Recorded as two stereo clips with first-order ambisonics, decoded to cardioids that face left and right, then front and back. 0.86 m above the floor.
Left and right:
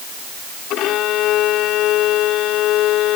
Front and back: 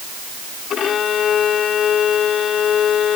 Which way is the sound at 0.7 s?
55° left.